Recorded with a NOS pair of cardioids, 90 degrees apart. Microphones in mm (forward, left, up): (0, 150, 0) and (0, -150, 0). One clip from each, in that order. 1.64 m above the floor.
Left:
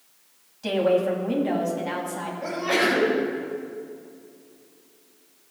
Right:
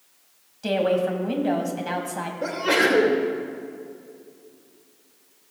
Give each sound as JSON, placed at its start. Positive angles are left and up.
{"t": 0.6, "sound": "a woman speaking", "azimuth_deg": -15, "distance_m": 2.5}
{"t": 2.4, "sound": "a sneeze", "azimuth_deg": -70, "distance_m": 2.5}